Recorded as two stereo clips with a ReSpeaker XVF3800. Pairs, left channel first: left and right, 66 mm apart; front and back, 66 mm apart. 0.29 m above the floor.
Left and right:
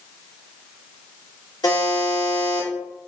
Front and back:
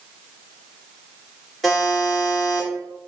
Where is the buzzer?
85° left, 1.0 m.